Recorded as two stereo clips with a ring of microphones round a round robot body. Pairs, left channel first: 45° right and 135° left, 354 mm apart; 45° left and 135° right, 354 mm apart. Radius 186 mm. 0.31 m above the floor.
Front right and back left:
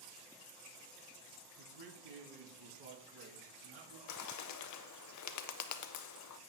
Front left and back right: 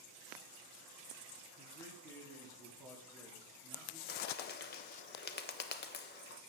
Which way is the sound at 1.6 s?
125° left.